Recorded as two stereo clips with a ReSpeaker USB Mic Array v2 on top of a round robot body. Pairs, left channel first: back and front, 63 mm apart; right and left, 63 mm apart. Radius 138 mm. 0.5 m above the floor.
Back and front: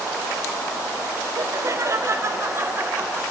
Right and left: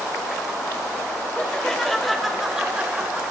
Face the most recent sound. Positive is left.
turn(degrees=45)